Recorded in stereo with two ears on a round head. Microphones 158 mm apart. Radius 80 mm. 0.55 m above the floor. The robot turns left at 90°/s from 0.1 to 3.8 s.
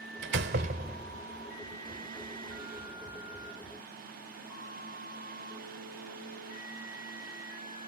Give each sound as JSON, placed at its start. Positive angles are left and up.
{"t": 0.2, "sound": "a door slam", "azimuth_deg": -85}